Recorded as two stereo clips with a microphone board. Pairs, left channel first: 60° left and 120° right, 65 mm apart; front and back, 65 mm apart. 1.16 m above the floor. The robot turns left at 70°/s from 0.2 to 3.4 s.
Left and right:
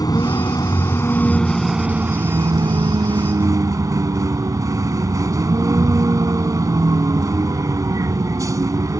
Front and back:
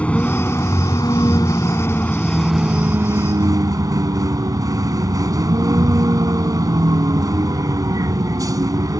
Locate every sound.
0.0 s a vehicle: 70° left; by 9.0 s 155° right